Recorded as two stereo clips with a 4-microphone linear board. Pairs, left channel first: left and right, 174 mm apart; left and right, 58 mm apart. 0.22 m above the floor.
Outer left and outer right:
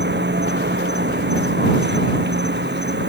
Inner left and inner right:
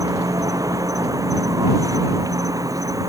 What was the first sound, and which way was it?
An insect, 85° right.